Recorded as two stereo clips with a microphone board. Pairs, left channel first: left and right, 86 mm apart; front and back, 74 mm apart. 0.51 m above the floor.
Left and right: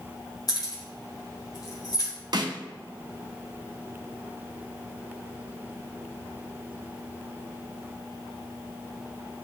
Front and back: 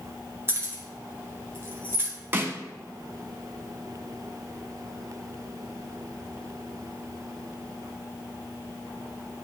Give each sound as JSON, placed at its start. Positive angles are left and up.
{"t": 0.5, "sound": "keys jangling", "azimuth_deg": 125, "distance_m": 1.7}
{"t": 2.3, "sound": "a snare drum", "azimuth_deg": -120, "distance_m": 0.8}